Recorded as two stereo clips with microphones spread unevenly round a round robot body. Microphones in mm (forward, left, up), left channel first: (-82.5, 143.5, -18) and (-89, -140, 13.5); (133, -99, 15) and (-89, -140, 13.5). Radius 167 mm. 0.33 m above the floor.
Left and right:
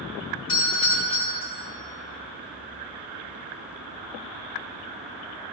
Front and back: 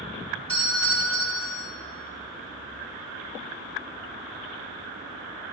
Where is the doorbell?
80° left, 4.5 m.